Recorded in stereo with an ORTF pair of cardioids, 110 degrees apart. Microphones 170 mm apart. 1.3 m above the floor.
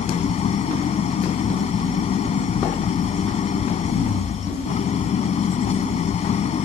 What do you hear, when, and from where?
0.0 s an engine running: 45° left